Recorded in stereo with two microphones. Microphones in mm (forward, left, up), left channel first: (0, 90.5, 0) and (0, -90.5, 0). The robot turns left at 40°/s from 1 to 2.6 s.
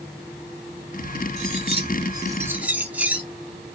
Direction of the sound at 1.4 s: 120° right.